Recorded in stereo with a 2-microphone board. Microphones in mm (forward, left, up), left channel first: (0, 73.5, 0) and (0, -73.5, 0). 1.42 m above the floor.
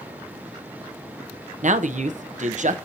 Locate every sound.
1.6 s a man speaking: 55° right (ahead or behind), 0.6 m